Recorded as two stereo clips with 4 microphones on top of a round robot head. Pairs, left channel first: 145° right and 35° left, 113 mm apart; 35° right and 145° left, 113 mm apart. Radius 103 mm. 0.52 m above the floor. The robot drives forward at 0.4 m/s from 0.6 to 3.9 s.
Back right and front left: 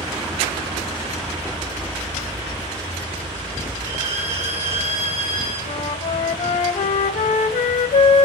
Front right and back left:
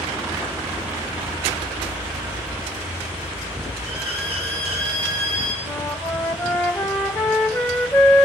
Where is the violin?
105° left, 4.5 m.